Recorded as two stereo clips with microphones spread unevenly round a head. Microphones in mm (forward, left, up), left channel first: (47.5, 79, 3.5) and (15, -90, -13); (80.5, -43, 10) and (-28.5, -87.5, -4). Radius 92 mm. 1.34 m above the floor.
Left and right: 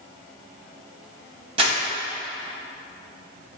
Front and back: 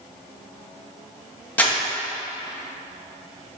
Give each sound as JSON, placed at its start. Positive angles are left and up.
{"t": 1.6, "sound": "crumpling", "azimuth_deg": -45, "distance_m": 0.9}